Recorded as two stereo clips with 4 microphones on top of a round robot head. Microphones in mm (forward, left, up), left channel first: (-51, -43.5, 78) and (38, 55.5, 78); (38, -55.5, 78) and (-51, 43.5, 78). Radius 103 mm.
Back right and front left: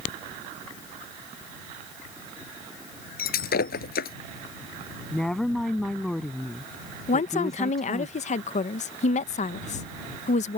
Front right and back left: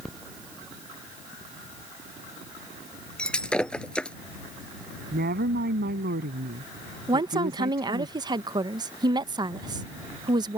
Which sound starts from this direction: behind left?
A woman speaking, at 5.1 s.